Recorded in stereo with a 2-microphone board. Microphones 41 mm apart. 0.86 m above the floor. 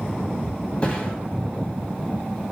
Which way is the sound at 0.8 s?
30° left (ahead or behind).